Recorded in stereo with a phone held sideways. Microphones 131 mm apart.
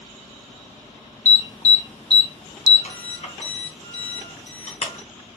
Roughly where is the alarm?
Left.